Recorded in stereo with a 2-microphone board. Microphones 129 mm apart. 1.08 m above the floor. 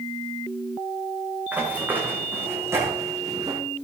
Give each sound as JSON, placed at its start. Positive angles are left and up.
{"t": 1.5, "sound": "running footsteps", "side_deg": -10, "distance_m": 6.5}